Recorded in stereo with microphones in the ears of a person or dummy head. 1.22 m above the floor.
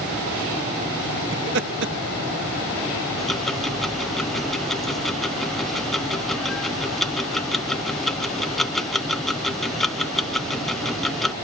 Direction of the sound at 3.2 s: 5° left (ahead or behind).